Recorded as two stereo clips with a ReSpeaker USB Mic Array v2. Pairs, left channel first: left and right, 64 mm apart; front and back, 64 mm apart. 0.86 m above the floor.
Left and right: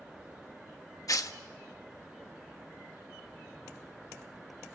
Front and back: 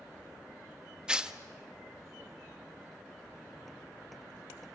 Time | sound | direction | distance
1.1 | tearing paper | 105° left | 1.0 m